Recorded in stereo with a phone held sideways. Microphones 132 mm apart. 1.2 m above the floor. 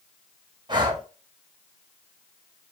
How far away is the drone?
No drone in this recording.